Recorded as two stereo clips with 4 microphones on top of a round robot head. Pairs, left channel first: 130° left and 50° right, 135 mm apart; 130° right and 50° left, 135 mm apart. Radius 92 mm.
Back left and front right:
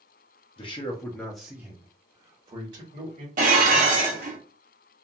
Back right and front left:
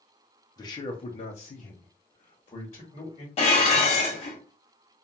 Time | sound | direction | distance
0.6 | a man speaking | 170° left | 0.7 m
3.4 | dishes clattering | 85° right | 0.8 m